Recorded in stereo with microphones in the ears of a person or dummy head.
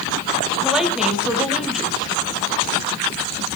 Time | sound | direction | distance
0.6 | a woman speaking | centre (ahead or behind) | 2 m